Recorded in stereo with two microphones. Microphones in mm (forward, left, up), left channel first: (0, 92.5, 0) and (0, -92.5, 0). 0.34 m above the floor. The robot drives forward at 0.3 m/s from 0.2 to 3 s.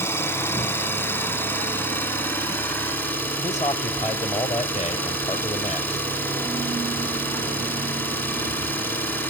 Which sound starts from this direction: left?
A man speaking, at 3.4 s.